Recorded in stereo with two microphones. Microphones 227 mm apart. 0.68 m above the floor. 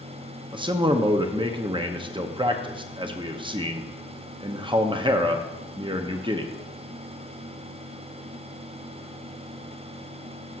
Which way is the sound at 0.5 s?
20° right (ahead or behind).